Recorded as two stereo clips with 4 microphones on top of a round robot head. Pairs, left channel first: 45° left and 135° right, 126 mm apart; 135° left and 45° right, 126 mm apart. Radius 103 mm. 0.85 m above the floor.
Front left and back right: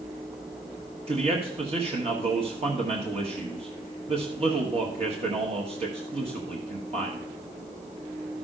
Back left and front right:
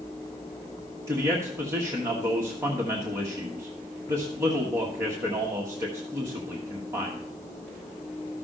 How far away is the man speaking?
About 1.5 m.